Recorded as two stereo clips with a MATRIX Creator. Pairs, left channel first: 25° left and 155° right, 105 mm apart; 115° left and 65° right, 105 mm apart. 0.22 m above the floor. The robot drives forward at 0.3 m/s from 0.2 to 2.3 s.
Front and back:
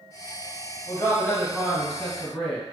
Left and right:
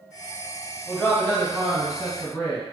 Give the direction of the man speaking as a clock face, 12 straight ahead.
10 o'clock.